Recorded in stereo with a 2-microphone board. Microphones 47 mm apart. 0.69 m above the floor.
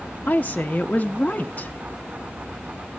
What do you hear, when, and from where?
0.3 s a woman speaking: 35° left (ahead or behind), 0.7 m